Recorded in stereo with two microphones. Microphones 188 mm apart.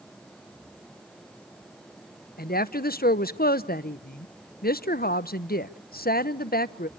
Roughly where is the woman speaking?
Left.